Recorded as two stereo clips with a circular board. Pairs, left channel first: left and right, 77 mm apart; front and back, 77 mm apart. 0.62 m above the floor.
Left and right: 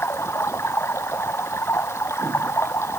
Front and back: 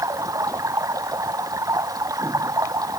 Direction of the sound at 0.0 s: 145° left.